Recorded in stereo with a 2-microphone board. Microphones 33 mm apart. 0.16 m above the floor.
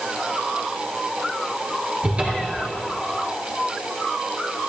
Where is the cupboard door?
35° right (ahead or behind), 2.5 m.